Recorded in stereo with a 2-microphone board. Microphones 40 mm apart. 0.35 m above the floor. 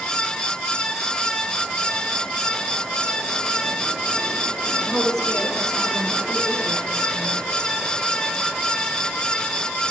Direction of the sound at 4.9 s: 10° left (ahead or behind).